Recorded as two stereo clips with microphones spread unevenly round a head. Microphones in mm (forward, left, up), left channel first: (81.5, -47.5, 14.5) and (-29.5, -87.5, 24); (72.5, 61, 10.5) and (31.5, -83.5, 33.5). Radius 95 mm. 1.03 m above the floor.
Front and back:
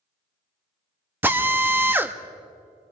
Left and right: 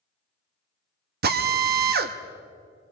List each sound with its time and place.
1.2 s a drill: 85° right, 1.2 m